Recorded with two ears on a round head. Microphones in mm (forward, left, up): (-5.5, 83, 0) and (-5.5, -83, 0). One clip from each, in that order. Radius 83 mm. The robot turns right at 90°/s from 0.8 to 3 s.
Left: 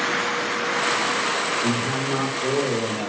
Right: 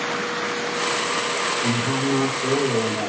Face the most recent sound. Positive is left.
turn(degrees=180)